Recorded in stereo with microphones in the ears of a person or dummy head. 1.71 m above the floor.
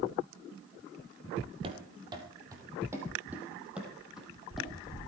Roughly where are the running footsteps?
Right.